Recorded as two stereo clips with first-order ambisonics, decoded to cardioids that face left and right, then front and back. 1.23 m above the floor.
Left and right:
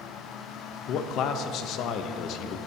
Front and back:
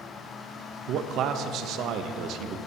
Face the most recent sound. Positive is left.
turn(degrees=130)